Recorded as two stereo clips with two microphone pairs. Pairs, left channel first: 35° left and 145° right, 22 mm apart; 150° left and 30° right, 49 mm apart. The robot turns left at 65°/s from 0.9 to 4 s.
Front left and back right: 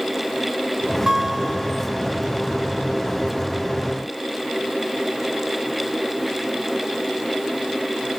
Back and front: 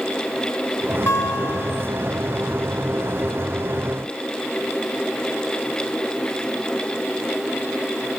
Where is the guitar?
160° left, 0.8 m; by 1.9 s 105° left, 0.8 m.